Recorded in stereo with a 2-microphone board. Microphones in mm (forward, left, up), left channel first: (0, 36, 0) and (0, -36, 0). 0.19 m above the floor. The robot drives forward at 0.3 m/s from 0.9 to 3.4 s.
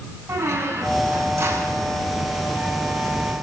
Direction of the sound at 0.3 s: 40° right (ahead or behind).